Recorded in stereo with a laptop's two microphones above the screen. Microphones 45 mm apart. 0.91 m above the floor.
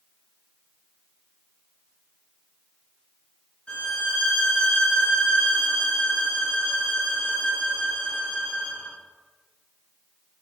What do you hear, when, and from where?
3.7 s a violin: 25° left (ahead or behind), 1.0 m